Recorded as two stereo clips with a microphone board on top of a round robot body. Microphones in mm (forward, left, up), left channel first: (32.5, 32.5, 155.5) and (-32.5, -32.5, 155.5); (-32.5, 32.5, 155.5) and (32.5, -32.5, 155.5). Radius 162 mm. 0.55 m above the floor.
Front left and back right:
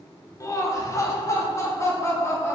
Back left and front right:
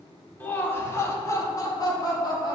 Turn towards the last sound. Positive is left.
turn(degrees=100)